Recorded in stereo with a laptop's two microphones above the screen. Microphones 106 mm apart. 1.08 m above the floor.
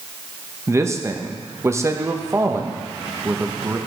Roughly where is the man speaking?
Right.